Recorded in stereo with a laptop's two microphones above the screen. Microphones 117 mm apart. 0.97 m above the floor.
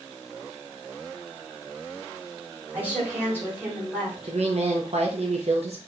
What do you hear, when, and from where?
2.7 s a woman speaking: 15° right (ahead or behind), 2.5 m
4.3 s a woman speaking: 60° right (ahead or behind), 0.6 m